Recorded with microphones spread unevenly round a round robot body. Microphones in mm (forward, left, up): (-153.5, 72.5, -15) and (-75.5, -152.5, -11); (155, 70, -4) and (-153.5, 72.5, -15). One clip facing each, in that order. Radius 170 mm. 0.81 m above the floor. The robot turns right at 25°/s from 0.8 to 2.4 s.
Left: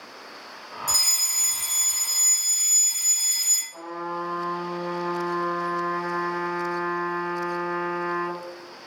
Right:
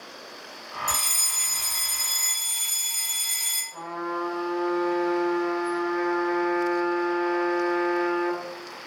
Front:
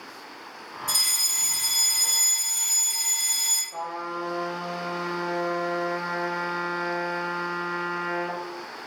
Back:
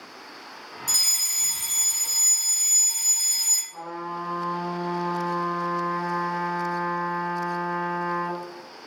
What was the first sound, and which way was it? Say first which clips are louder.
A fire alarm: right 2 dB, front 2 dB; 160° left.